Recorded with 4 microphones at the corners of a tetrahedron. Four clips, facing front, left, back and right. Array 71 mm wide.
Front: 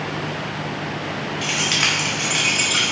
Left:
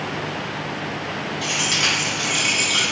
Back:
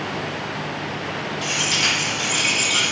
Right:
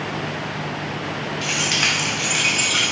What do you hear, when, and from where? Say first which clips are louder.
1.4 s keys jangling: right 1 dB, front 1 dB; 35° right, 1.8 m; by 2.9 s 60° right, 1.0 m